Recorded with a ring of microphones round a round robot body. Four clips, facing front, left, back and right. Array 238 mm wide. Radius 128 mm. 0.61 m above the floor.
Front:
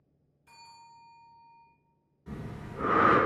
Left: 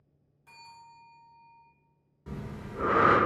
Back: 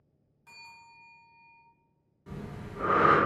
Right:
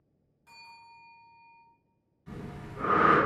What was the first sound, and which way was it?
A bell, straight behind.